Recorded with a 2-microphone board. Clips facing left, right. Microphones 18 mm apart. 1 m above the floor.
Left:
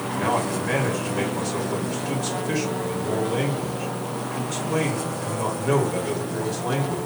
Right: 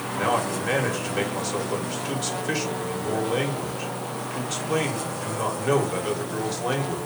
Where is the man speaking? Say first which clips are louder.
Even; 60° right (ahead or behind), 1.4 m.